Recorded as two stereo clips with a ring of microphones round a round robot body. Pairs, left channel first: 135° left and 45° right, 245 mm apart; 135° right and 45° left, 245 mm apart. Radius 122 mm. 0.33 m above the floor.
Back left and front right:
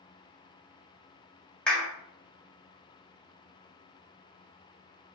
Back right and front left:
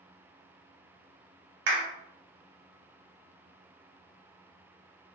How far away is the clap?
About 1.7 m.